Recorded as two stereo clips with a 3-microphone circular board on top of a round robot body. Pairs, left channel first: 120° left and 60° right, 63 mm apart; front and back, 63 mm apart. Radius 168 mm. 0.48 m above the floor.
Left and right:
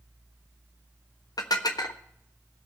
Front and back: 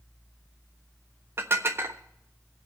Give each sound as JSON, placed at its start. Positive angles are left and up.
{"t": 1.4, "sound": "dishes clattering", "azimuth_deg": 130, "distance_m": 1.2}